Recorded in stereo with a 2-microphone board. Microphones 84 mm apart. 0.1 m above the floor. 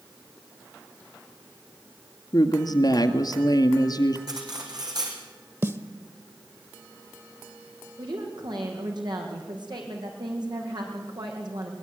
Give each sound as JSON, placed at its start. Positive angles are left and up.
{"t": 2.3, "sound": "a woman speaking", "side_deg": 50, "distance_m": 1.8}
{"t": 4.3, "sound": "cutlery clinking", "side_deg": -50, "distance_m": 4.0}
{"t": 5.6, "sound": "a snare drum", "side_deg": -30, "distance_m": 1.2}
{"t": 8.0, "sound": "a woman speaking", "side_deg": -55, "distance_m": 5.0}